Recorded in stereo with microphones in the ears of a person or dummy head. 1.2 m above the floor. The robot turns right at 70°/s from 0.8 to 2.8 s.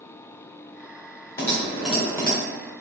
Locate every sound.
1.4 s typing on a keyboard: 150° left, 0.9 m; by 2.4 s 140° right, 0.9 m